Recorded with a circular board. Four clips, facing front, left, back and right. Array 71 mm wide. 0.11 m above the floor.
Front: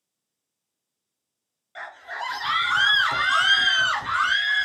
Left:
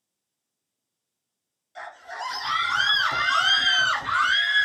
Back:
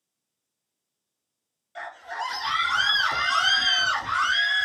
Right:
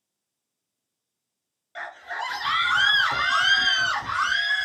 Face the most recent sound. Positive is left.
turn(degrees=55)